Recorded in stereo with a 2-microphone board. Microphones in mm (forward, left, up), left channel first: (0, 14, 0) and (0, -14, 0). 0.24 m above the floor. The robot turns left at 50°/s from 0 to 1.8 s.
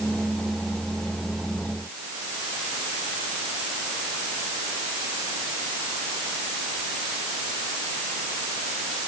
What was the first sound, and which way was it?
Only background noise.